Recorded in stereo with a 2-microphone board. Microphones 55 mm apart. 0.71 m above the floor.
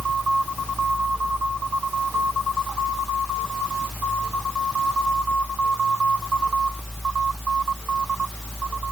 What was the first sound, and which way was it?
Only background noise.